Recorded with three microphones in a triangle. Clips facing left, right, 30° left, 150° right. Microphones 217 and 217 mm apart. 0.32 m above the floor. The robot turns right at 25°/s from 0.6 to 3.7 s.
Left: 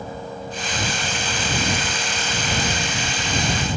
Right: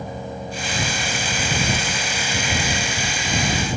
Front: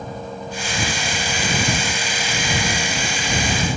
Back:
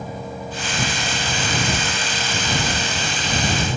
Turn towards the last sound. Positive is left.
No sound to turn to.